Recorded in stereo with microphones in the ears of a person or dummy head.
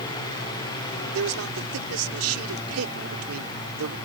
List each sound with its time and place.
1.1 s a man speaking: 85° right